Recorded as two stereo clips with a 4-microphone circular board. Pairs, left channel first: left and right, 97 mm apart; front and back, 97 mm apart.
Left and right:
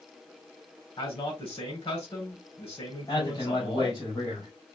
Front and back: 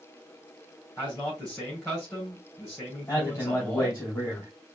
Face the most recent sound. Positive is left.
turn(degrees=60)